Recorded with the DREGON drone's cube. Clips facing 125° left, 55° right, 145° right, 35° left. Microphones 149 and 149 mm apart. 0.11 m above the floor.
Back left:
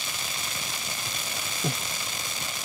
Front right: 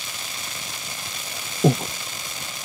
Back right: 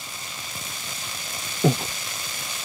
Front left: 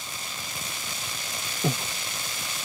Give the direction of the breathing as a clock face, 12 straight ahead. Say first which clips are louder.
Front right 14 dB, back right 7 dB; 3 o'clock.